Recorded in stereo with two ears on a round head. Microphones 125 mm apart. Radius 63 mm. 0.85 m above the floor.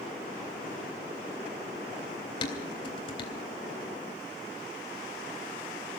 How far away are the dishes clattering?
About 3.5 m.